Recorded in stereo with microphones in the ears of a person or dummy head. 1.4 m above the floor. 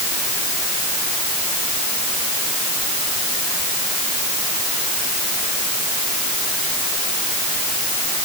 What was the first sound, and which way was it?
Only background noise.